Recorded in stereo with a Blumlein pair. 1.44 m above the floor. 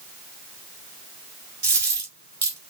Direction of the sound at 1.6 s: 65° right.